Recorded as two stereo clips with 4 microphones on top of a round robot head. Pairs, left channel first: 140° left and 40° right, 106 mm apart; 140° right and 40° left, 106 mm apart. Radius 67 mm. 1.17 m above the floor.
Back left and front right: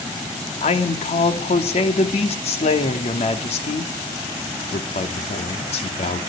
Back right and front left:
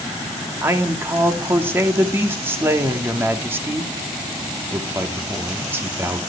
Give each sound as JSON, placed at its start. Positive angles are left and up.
{"t": 0.6, "sound": "a man speaking", "azimuth_deg": 115, "distance_m": 2.5}